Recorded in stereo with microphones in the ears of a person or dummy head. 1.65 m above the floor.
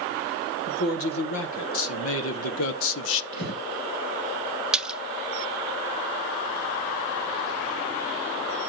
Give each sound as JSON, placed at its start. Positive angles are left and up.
{"t": 0.7, "sound": "a man speaking", "side_deg": 90, "distance_m": 2.5}
{"t": 3.3, "sound": "breathing", "side_deg": 55, "distance_m": 6.5}
{"t": 4.7, "sound": "a splash", "side_deg": 0, "distance_m": 0.6}